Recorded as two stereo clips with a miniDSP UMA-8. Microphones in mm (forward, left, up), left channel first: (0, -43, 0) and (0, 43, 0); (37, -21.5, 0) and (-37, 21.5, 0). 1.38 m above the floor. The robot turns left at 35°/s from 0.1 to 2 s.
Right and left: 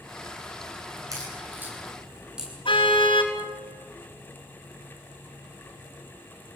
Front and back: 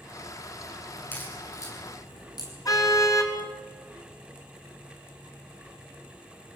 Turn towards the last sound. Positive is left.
turn(degrees=-75)